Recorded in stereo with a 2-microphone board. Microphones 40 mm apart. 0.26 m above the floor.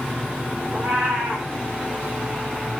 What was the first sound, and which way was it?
A cat meowing, 35° right (ahead or behind).